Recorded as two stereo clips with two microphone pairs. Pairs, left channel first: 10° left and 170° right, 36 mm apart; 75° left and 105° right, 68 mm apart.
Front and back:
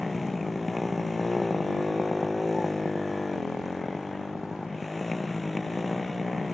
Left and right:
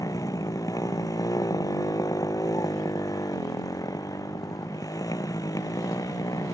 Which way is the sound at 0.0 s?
100° left.